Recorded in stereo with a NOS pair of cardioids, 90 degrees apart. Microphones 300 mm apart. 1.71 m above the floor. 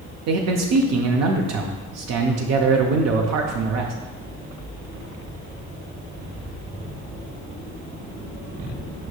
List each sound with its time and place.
0.3 s a man speaking: 60° right, 0.5 m